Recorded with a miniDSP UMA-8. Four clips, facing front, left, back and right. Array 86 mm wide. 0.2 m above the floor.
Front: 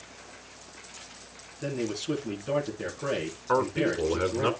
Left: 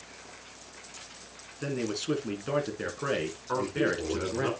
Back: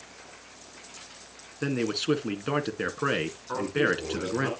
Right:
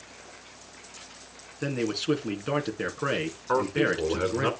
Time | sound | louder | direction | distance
1.6 | a man speaking | right 3 dB, back 3 dB | 160° right | 2 m
3.5 | a man speaking | right 4 dB, front 2 dB | 40° right | 2.5 m